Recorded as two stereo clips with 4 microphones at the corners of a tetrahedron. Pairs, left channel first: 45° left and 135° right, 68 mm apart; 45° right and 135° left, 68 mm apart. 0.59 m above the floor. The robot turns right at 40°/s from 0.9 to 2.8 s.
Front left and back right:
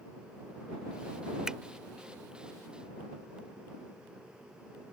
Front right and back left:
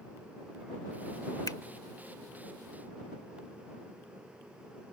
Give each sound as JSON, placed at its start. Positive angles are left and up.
{"t": 1.5, "sound": "a finger snap", "azimuth_deg": -55}